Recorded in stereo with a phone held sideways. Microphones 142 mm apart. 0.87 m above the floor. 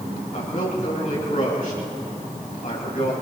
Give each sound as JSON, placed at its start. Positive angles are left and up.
{"t": 0.3, "sound": "a man speaking", "side_deg": 70, "distance_m": 7.0}